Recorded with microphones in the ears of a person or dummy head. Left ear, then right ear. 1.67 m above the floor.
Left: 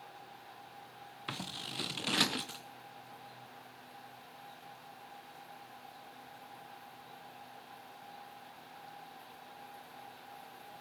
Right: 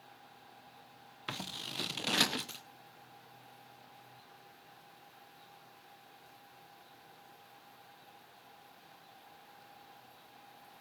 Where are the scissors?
10° right (ahead or behind), 0.7 m.